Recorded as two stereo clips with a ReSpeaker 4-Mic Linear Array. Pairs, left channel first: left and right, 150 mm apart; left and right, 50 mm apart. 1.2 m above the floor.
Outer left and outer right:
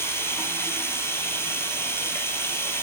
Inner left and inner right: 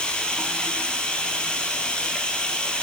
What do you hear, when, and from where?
0.0 s running water: 15° left (ahead or behind), 2.5 m